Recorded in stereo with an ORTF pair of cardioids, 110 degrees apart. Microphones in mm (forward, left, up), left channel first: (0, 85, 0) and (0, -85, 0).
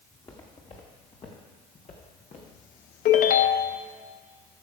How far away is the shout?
No shout in this recording.